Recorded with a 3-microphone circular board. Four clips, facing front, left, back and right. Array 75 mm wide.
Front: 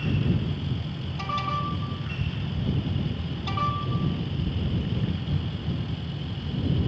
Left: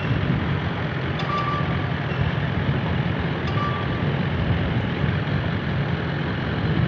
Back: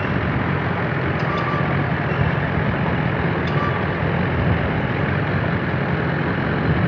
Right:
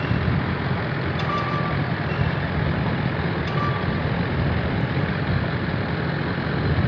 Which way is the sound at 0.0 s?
175° right.